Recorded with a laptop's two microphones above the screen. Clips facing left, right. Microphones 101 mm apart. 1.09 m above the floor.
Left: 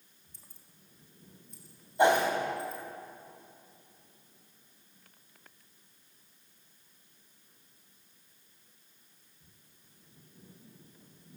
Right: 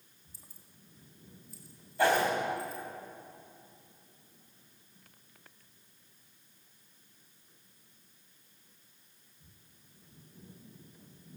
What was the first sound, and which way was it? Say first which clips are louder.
Keys jangling: right 2 dB; 10° right (ahead or behind).